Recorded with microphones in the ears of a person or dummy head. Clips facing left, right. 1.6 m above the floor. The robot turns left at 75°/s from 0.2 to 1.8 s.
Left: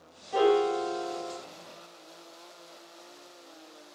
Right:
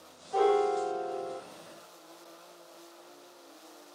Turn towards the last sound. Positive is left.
turn(degrees=-25)